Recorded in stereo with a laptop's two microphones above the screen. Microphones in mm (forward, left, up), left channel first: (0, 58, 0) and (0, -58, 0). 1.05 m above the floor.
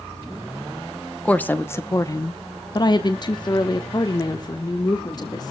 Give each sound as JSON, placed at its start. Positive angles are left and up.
{"t": 1.2, "sound": "a woman speaking", "side_deg": 10, "distance_m": 0.8}